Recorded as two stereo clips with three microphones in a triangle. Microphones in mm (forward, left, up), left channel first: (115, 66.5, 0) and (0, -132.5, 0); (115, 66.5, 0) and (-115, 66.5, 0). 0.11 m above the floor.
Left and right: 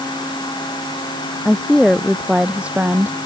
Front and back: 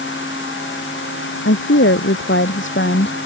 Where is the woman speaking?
25° right; by 3.2 s 40° right.